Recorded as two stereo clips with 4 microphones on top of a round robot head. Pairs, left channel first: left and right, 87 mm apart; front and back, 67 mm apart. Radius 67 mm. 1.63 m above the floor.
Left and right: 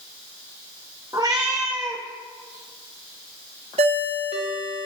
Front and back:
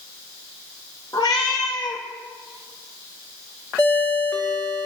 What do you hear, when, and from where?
1.1 s a cat meowing: 35° right, 1.1 m
3.8 s a ringtone: 75° right, 1.2 m